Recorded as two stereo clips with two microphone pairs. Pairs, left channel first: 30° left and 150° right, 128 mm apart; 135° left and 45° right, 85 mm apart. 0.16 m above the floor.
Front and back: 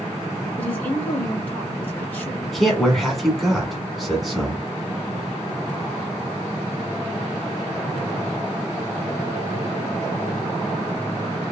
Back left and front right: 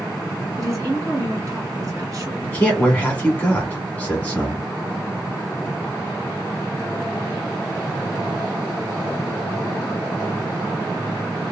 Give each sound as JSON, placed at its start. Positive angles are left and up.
{"t": 0.6, "sound": "a woman speaking", "azimuth_deg": -40, "distance_m": 1.9}
{"t": 2.4, "sound": "a man speaking", "azimuth_deg": 120, "distance_m": 1.2}